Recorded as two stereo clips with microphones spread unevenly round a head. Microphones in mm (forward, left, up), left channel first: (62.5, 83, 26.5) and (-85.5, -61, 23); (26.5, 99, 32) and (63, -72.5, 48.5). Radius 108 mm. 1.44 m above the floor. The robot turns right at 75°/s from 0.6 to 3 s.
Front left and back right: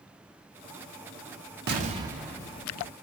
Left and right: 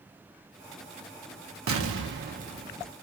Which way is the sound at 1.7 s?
90° right.